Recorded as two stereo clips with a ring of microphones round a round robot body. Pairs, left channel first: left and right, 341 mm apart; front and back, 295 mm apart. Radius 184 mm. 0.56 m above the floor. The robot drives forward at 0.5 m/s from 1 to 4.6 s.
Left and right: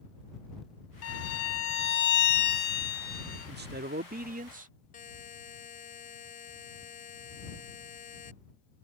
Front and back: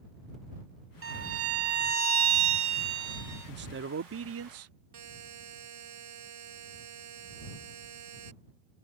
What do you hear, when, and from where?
1.0 s a violin: 135° left; by 3.5 s 155° left
3.5 s a man speaking: 140° right; by 4.7 s 155° right
4.9 s a buzzer: 160° left